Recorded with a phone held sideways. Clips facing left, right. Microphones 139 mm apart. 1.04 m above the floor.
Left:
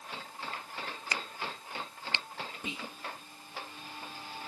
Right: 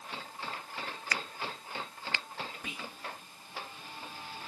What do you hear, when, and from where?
1.1 s a crack: 25° left (ahead or behind)
2.6 s whispering: 25° left (ahead or behind)